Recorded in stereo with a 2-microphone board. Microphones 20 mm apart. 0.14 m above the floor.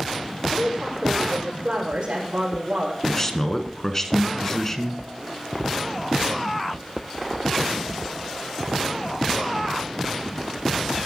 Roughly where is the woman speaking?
Right.